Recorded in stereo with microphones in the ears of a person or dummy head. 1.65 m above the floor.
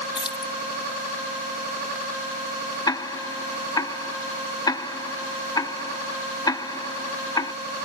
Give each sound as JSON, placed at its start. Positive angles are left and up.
{"t": 0.1, "sound": "keys jangling", "side_deg": 30}
{"t": 2.9, "sound": "ticking", "side_deg": 25}